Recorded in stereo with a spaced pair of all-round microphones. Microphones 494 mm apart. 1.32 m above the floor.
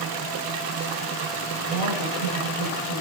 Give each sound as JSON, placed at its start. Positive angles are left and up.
{"t": 1.6, "sound": "a woman speaking", "side_deg": 90, "distance_m": 8.5}